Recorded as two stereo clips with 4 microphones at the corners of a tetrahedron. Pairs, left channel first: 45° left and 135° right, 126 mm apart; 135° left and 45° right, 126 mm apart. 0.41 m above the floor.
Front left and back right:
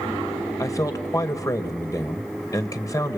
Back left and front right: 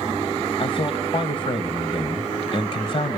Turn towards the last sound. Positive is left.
turn(degrees=105)